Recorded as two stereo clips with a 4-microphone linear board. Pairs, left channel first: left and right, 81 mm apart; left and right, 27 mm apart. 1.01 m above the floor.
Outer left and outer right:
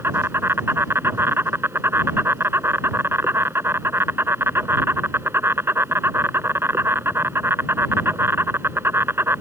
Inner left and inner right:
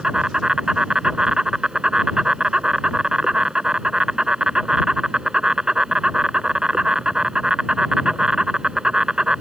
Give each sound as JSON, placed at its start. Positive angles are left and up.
{"t": 0.0, "sound": "an insect", "side_deg": -30}